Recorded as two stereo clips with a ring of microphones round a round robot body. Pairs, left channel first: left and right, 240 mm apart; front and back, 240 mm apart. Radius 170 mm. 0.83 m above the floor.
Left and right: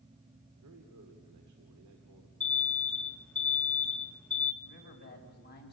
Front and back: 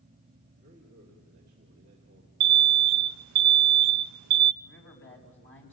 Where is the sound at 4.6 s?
40° left, 6.5 m.